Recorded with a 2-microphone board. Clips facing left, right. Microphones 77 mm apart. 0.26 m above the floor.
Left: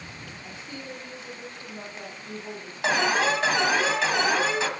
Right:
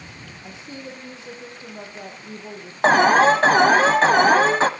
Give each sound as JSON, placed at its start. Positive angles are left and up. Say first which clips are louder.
{"t": 0.4, "sound": "a woman speaking", "louder": "right 4 dB", "side_deg": -20, "distance_m": 7.5}
{"t": 2.8, "sound": "an alarm", "louder": "right 9 dB", "side_deg": -45, "distance_m": 1.3}